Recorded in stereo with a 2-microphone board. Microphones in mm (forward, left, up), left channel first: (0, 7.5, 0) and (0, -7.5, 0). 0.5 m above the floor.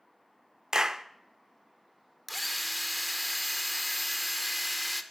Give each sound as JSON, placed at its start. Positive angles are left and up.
{"t": 0.7, "sound": "a clap", "side_deg": -45, "distance_m": 0.7}
{"t": 2.3, "sound": "a drill", "side_deg": 0, "distance_m": 1.0}